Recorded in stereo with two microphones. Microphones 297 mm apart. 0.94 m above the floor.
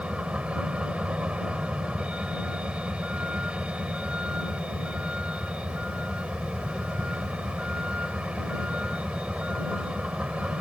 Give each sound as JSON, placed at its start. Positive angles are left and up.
{"t": 0.0, "sound": "a vehicle", "side_deg": -5}